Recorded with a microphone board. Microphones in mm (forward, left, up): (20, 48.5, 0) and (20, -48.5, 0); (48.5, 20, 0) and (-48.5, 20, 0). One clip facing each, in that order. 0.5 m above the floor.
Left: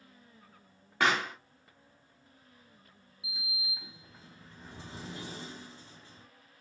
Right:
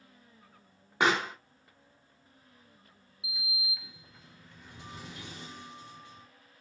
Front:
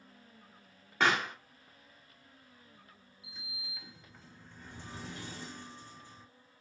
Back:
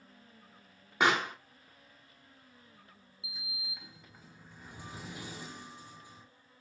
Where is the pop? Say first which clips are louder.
Right 2 dB, back 1 dB; 130° right, 0.8 m.